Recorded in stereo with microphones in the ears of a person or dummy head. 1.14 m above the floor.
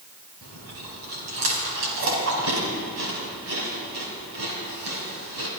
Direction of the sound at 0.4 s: 85° right.